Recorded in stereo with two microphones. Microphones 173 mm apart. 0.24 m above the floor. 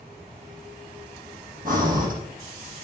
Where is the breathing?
55° right (ahead or behind), 3 m.